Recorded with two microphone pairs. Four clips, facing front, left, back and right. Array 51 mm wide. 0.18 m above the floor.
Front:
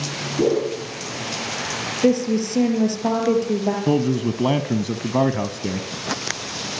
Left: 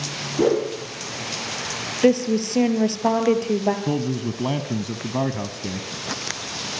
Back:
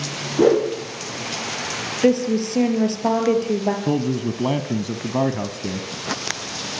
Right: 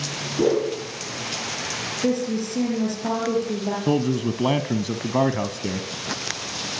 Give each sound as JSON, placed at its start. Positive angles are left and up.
{"t": 0.4, "sound": "a whoosh", "azimuth_deg": 155, "distance_m": 8.0}
{"t": 2.0, "sound": "a woman speaking", "azimuth_deg": 120, "distance_m": 4.5}
{"t": 3.9, "sound": "a man speaking", "azimuth_deg": -55, "distance_m": 1.1}